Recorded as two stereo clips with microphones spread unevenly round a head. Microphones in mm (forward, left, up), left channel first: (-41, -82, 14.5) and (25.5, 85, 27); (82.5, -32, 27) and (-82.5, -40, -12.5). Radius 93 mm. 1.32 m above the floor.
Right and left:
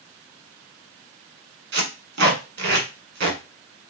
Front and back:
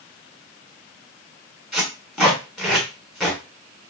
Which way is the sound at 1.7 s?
80° left.